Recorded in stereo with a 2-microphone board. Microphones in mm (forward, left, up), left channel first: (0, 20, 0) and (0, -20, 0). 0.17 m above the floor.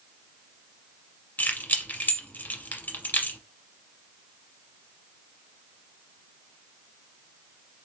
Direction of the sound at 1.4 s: 40° left (ahead or behind).